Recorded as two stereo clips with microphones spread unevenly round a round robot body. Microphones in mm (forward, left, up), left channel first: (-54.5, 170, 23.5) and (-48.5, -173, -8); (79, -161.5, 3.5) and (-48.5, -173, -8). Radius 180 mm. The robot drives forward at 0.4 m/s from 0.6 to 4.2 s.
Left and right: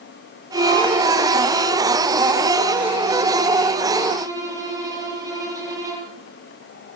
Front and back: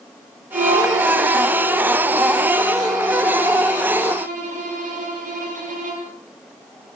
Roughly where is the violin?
Behind.